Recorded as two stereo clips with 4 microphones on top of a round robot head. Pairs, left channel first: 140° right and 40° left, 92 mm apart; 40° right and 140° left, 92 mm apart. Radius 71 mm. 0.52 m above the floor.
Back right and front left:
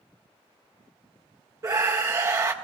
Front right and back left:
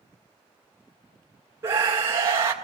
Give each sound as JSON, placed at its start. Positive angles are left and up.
{"t": 1.6, "sound": "a scream", "azimuth_deg": 85, "distance_m": 1.9}